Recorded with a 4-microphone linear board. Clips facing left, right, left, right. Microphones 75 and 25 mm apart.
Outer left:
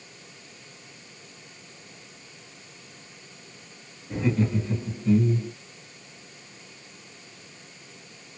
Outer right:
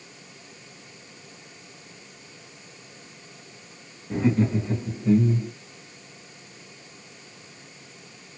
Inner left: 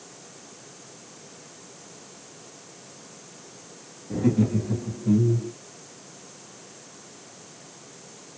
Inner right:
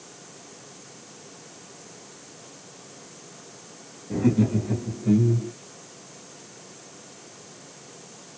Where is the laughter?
30° right (ahead or behind), 1.3 m.